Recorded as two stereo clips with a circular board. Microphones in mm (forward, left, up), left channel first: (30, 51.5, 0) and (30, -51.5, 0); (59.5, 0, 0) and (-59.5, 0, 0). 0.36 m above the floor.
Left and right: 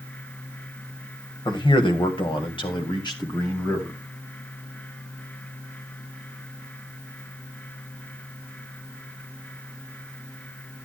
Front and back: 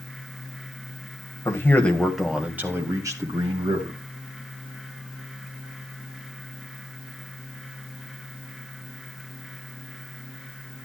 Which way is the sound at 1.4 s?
60° left.